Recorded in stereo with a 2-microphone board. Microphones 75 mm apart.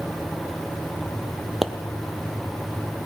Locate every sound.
1.6 s a pop: 5° right (ahead or behind), 1.0 m